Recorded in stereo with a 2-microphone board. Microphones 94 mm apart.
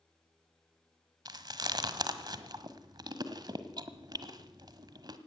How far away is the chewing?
About 1.4 m.